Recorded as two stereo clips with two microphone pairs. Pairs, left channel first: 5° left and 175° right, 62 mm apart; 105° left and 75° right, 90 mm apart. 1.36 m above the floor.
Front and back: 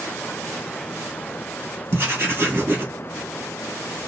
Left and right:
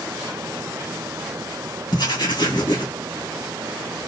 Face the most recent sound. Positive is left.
turn(degrees=130)